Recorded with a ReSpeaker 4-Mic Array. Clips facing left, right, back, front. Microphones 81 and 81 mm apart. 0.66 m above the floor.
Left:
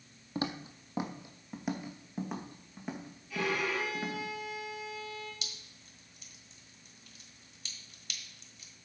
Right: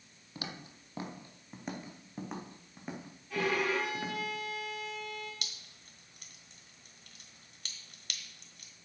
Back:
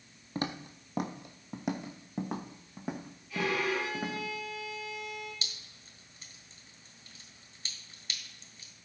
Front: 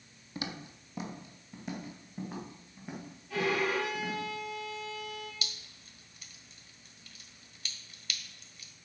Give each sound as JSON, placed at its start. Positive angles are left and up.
{"t": 0.3, "sound": "footsteps", "azimuth_deg": 140, "distance_m": 1.1}
{"t": 3.3, "sound": "a violin", "azimuth_deg": -40, "distance_m": 6.0}
{"t": 5.4, "sound": "dripping", "azimuth_deg": -120, "distance_m": 1.4}